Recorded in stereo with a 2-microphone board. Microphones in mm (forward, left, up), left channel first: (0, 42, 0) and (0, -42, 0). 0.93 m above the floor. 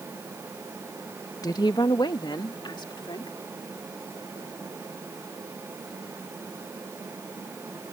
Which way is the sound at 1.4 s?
45° left (ahead or behind).